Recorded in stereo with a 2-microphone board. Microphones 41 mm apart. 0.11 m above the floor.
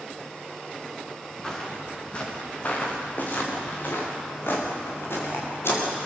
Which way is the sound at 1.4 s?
20° left (ahead or behind).